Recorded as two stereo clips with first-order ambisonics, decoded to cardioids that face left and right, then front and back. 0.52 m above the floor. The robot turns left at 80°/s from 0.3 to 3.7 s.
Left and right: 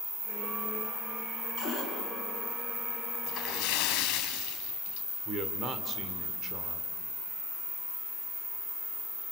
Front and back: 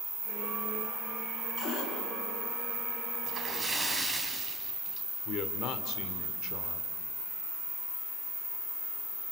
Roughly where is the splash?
Behind left.